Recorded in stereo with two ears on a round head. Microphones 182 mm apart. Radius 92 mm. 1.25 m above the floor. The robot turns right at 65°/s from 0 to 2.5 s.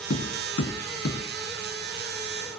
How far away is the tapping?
About 2.5 m.